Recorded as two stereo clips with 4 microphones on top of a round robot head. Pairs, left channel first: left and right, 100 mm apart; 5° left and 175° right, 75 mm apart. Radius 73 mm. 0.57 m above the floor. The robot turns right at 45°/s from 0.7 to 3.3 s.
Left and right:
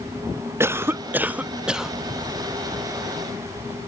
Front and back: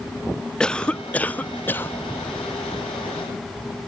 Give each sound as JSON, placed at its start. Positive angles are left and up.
{"t": 0.6, "sound": "a cough", "azimuth_deg": -60, "distance_m": 0.6}